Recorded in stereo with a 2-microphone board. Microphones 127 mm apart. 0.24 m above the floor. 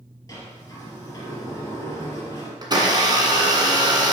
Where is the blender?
35° right (ahead or behind), 1.7 m.